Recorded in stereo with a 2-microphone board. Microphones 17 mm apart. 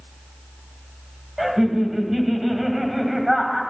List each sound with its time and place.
1.4 s laughter: 20° right (ahead or behind), 2.5 m